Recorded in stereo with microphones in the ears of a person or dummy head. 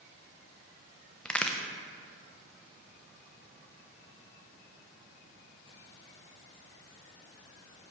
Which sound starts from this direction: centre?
A crack, at 1.2 s.